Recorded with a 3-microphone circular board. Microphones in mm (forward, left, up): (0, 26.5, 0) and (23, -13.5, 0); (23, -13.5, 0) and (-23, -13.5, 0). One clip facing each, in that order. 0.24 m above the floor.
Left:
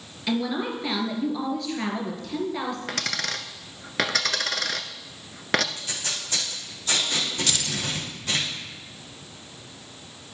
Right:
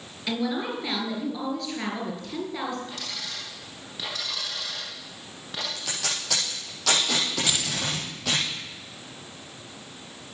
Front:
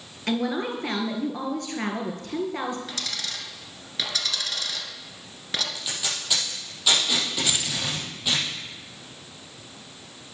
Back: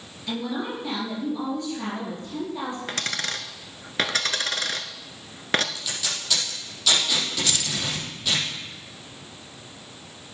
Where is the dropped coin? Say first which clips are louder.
Left 7 dB, back 4 dB; 140° left, 1.1 m.